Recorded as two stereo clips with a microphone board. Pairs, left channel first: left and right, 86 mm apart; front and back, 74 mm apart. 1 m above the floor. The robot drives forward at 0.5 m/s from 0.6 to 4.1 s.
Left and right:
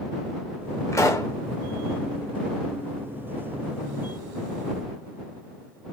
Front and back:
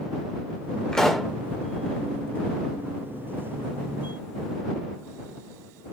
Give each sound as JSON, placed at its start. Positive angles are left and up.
{"t": 0.9, "sound": "a pop", "azimuth_deg": 70, "distance_m": 0.8}